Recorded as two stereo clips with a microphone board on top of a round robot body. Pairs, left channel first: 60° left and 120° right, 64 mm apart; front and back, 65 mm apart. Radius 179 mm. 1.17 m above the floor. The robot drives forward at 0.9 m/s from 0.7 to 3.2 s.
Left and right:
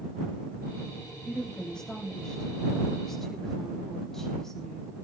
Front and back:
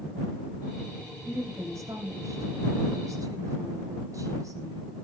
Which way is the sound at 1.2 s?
140° left.